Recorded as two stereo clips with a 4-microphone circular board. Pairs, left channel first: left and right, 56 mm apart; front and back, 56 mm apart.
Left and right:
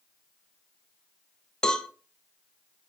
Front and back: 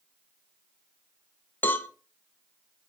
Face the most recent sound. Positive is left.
turn(degrees=25)